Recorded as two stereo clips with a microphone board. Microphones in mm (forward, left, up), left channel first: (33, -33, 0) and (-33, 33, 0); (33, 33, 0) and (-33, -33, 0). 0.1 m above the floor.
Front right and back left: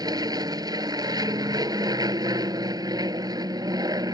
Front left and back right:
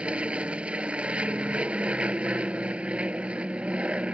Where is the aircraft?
155° left.